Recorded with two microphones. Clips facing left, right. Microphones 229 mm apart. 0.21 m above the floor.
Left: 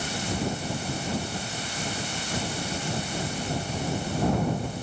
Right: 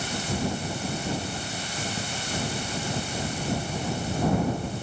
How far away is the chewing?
I don't hear chewing.